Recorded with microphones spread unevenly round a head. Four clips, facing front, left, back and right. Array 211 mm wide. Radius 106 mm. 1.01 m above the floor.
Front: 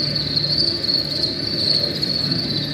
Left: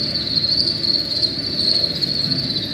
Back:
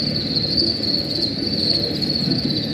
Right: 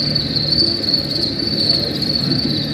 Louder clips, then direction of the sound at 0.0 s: Right 6 dB, back 3 dB; 125° right.